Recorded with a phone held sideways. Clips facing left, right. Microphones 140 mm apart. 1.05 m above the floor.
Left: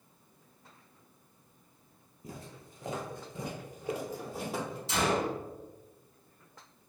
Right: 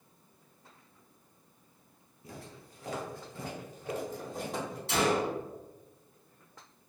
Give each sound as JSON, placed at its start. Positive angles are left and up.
{"t": 2.2, "sound": "footsteps", "side_deg": 25, "distance_m": 1.3}
{"t": 4.9, "sound": "a gunshot", "side_deg": -65, "distance_m": 1.2}